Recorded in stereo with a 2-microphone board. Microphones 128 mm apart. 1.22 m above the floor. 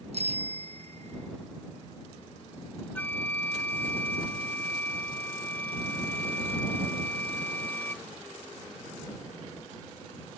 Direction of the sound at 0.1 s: 55° right (ahead or behind).